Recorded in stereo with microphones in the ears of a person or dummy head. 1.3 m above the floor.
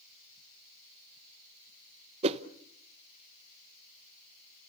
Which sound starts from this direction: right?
A whoosh, at 2.2 s.